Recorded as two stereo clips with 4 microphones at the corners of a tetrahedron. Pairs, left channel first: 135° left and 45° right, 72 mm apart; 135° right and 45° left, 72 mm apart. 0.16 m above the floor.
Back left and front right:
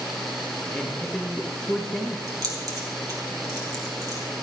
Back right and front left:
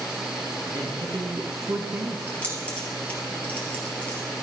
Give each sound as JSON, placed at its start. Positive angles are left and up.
{"t": 0.7, "sound": "a man speaking", "azimuth_deg": 50, "distance_m": 2.5}
{"t": 2.3, "sound": "keys jangling", "azimuth_deg": -70, "distance_m": 3.0}